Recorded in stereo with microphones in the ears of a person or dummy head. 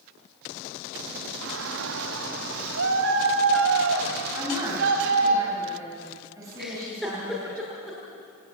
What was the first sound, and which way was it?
A shout, 75° right (ahead or behind).